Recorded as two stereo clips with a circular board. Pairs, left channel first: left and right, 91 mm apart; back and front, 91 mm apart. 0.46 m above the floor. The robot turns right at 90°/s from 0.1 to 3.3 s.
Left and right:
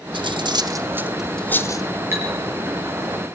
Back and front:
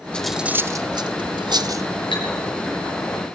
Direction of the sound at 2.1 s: 155° right.